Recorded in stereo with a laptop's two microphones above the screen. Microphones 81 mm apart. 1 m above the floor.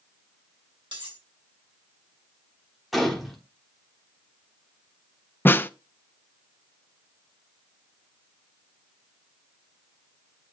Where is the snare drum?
25° left (ahead or behind), 0.5 m.